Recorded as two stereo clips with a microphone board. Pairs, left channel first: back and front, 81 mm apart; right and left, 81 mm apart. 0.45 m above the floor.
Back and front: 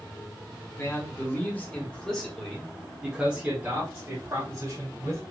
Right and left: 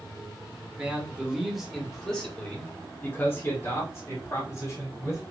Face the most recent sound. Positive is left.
turn(degrees=-50)